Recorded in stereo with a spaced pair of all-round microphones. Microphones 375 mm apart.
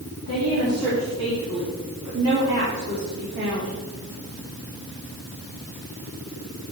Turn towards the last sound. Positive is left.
turn(degrees=-35)  # may be behind; listen again after turning